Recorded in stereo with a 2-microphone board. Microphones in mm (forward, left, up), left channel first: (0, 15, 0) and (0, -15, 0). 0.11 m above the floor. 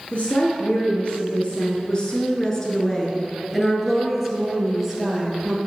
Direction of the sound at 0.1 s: 45° left (ahead or behind).